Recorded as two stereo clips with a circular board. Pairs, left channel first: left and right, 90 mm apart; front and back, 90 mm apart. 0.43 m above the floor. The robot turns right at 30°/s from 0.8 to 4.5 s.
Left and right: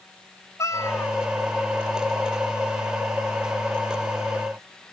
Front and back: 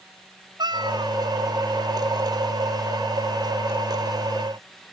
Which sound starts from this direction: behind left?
A cat meowing, at 0.6 s.